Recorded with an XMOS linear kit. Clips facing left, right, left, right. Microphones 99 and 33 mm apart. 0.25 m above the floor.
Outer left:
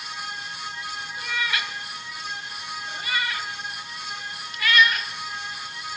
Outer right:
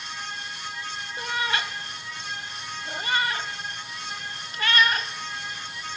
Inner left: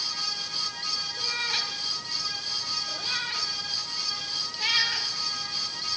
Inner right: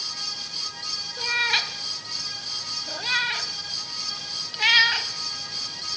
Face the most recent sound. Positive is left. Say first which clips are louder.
# outer right 2 dB, inner right 8 dB
turn(degrees=-40)  # may be behind; listen again after turning